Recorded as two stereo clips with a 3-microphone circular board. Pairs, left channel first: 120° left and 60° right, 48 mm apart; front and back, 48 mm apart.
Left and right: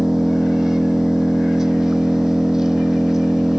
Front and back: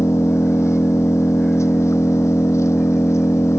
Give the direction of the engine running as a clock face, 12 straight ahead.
11 o'clock.